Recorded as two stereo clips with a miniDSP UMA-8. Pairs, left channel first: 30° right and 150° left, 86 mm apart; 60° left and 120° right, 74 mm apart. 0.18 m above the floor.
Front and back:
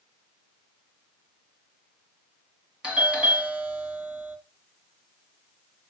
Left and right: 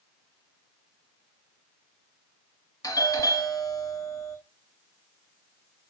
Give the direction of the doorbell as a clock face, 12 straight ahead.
9 o'clock.